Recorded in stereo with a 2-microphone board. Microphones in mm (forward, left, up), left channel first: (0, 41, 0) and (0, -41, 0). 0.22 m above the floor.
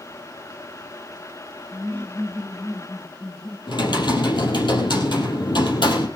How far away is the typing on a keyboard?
About 4.5 m.